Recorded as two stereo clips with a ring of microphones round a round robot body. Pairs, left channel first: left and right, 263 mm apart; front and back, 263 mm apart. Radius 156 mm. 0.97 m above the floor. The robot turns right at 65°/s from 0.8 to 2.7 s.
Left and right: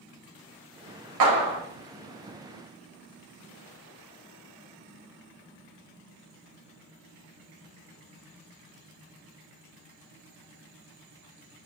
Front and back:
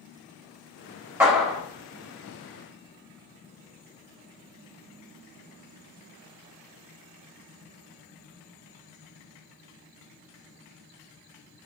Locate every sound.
1.2 s a clap: 100° right, 1.3 m; by 1.6 s 75° right, 1.3 m